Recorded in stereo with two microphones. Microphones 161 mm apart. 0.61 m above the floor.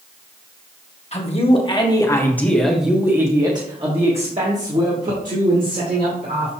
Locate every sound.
1.1 s a man speaking: 40° left (ahead or behind), 1.5 m; by 6.5 s 65° right (ahead or behind), 2.5 m